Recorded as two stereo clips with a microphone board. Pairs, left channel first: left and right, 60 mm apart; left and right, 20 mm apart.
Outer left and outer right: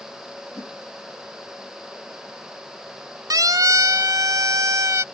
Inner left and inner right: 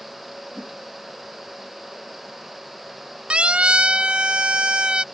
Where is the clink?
No clink in this recording.